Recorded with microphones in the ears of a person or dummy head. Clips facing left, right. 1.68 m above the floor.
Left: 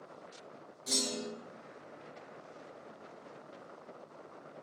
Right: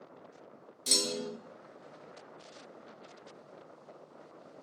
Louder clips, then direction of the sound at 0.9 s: Right 2 dB; 40° right (ahead or behind).